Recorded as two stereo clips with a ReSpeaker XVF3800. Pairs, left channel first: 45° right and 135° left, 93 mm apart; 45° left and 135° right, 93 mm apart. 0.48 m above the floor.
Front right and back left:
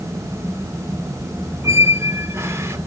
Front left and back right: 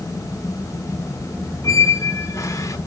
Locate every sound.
1.6 s a squeak: 85° left, 0.7 m